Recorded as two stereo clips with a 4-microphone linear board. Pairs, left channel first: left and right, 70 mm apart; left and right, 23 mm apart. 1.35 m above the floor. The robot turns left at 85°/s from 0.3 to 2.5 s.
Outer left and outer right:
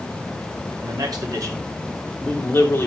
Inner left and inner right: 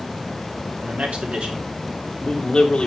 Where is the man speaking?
70° right, 3.5 m; by 2.9 s 145° left, 3.5 m.